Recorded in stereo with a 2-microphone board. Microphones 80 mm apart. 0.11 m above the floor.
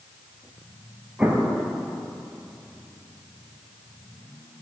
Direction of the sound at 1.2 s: 15° right (ahead or behind).